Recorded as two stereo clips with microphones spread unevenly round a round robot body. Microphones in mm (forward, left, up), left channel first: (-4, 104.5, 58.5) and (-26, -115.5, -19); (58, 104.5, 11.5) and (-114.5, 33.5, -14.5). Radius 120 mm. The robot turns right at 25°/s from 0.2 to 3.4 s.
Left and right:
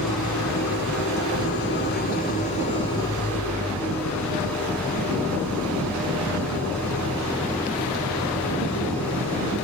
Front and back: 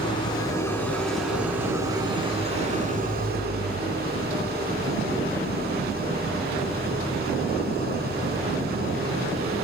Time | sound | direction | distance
0.0 | an engine running | 90° left | 3.5 m